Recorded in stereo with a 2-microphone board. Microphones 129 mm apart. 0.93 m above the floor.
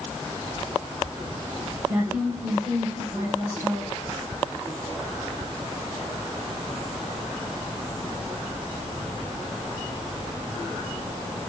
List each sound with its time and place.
1.9 s a woman speaking: 20° right (ahead or behind), 4 m